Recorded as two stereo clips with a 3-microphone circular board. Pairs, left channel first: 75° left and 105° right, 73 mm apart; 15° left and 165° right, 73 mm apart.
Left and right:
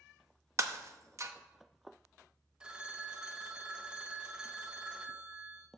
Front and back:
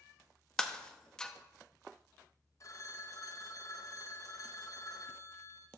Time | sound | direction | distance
0.6 | breaking glass | 65° right | 0.8 m
2.6 | a phone ringing | 25° right | 0.8 m